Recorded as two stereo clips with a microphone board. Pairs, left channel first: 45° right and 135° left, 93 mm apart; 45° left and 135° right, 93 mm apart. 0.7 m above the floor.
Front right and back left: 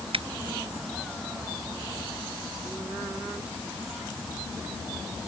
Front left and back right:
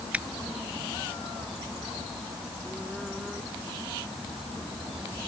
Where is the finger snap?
145° left.